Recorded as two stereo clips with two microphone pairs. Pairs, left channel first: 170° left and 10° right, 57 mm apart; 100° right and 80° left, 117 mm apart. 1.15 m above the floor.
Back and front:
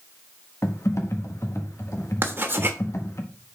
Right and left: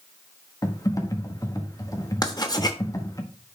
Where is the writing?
55° right, 1.1 m.